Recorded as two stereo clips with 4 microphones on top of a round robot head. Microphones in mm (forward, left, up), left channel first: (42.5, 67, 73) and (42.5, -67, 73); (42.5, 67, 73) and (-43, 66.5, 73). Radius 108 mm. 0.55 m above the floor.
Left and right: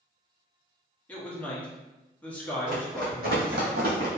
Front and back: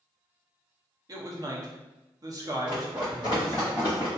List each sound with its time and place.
1.1 s a man speaking: 165° left, 0.8 m
2.7 s running footsteps: 130° right, 1.4 m; by 4.1 s 90° right, 1.2 m